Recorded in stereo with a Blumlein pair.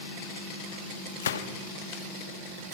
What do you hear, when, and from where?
1.2 s a gunshot: 60° left, 1.4 m